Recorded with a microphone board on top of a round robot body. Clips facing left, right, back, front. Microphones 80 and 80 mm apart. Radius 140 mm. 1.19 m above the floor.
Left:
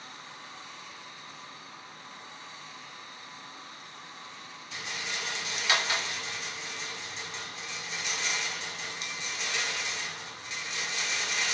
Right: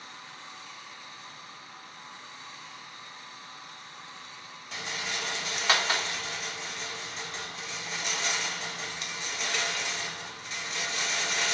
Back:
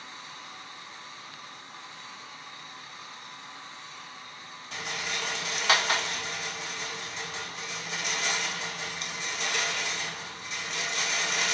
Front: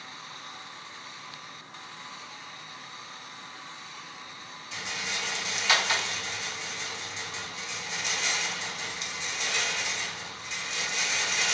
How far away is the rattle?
About 1.7 m.